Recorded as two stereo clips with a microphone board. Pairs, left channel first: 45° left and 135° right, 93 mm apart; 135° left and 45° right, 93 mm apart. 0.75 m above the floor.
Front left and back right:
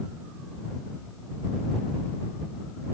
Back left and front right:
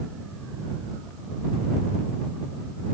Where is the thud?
I don't hear a thud.